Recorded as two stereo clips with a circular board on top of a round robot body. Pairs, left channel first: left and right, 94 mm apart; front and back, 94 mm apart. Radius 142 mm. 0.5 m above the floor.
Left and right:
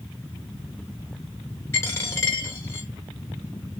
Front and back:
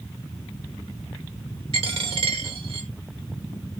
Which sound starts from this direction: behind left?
A dropped coin, at 1.7 s.